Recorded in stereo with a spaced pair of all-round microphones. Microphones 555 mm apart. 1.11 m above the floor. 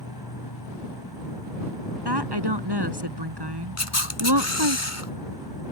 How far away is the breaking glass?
No breaking glass in this recording.